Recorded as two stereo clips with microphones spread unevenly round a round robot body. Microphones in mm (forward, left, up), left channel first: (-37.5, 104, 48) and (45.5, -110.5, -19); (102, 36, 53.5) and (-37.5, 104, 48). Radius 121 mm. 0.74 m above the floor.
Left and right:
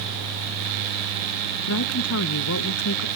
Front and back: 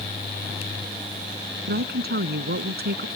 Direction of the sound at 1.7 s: 145° left.